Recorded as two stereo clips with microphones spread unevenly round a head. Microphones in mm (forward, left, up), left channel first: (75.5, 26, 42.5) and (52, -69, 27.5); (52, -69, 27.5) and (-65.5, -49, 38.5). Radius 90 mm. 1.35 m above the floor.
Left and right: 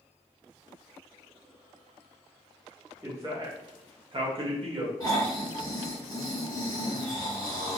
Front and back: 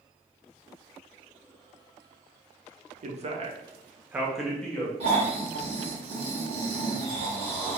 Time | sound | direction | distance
3.0 | a man speaking | 170° right | 0.7 m
5.0 | snoring | 175° right | 1.2 m